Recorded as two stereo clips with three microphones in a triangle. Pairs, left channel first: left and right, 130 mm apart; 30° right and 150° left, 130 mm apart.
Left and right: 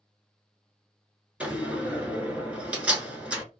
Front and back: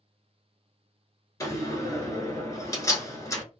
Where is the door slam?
25° right, 1.0 m.